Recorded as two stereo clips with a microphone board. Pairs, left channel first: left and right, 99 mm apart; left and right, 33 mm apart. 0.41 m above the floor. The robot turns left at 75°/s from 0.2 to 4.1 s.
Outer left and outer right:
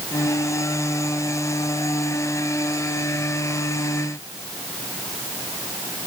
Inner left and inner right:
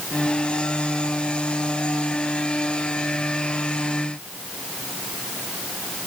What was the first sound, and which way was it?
Only background noise.